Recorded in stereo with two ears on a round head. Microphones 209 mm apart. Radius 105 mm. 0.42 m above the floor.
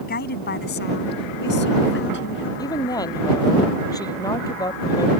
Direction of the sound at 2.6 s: 15° left (ahead or behind).